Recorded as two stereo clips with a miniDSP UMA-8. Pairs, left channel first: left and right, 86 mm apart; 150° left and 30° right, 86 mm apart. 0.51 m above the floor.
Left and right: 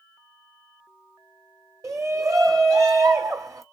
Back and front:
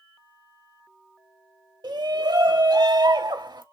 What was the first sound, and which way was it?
A shout, 45° right.